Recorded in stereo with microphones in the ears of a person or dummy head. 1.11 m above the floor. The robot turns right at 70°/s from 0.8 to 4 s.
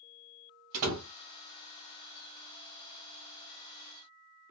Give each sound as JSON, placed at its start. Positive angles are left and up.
{"t": 0.7, "sound": "a door slam", "side_deg": -80, "distance_m": 0.7}